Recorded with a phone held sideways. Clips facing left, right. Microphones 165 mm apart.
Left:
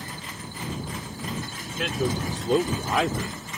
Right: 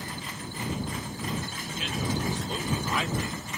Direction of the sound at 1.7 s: 75° left (ahead or behind).